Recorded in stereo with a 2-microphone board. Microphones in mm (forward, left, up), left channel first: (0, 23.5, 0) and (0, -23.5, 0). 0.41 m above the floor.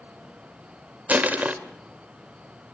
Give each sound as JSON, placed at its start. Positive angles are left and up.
{"t": 1.1, "sound": "crushing", "side_deg": -35, "distance_m": 1.3}